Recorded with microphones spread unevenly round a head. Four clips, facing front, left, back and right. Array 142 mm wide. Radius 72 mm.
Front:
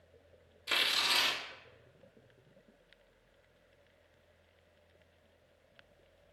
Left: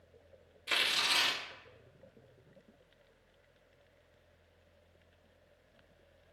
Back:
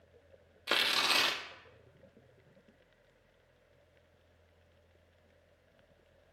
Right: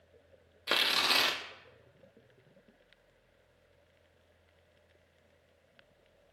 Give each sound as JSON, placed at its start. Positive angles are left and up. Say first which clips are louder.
{"t": 0.7, "sound": "tearing paper", "louder": "right 4 dB, back 3 dB", "azimuth_deg": -125, "distance_m": 0.9}